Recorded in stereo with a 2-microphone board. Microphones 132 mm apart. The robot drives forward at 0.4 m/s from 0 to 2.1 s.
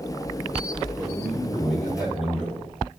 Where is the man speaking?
10° right (ahead or behind), 3 m.